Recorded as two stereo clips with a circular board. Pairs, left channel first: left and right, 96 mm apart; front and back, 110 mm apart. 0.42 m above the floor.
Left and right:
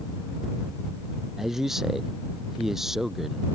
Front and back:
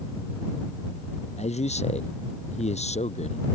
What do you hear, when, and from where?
1.4 s a man speaking: 5° right